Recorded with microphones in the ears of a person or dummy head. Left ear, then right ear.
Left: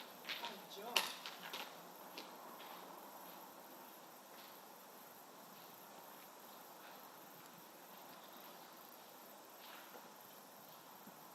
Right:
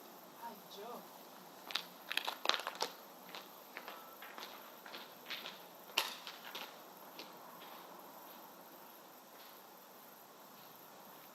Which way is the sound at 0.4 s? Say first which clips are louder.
Even; 10° left (ahead or behind).